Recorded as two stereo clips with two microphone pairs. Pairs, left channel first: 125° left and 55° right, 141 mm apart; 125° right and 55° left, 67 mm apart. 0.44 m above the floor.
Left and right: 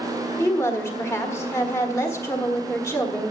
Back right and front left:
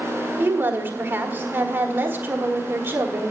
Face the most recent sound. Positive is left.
turn(degrees=70)